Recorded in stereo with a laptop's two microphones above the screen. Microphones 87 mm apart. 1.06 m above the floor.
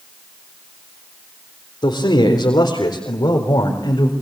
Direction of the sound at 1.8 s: 65° left (ahead or behind).